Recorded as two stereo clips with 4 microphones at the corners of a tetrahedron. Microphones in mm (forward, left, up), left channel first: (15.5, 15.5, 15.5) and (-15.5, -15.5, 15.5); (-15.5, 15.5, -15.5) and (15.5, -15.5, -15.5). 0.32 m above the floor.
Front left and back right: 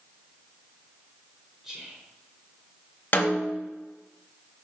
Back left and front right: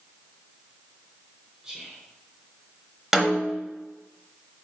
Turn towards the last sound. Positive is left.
turn(degrees=30)